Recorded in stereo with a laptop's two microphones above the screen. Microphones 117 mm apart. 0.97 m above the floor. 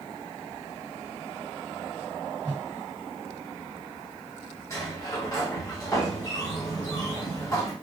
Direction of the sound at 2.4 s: 20° right (ahead or behind).